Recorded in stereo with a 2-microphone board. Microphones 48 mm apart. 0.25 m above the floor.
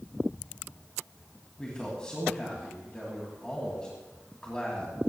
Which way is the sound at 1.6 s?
20° left (ahead or behind).